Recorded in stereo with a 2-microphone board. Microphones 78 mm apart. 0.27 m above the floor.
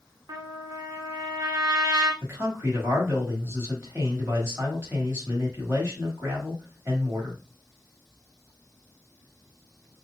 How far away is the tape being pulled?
I don't hear tape being pulled.